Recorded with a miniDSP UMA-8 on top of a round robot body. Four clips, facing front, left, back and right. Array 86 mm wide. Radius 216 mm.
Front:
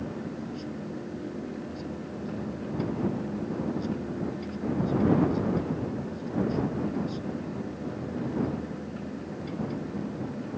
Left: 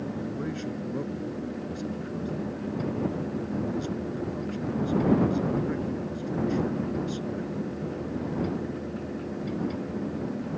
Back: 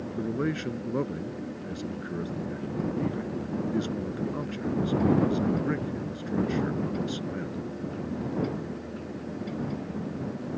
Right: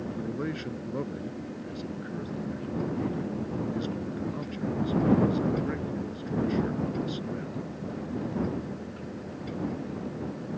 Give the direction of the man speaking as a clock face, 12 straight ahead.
5 o'clock.